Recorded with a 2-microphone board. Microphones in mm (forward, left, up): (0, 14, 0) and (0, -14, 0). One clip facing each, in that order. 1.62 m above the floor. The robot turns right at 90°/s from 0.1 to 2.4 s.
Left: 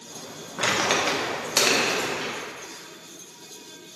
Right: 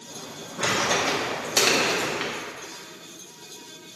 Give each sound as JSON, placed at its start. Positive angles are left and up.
{"t": 0.6, "sound": "crumpling", "side_deg": 55, "distance_m": 1.0}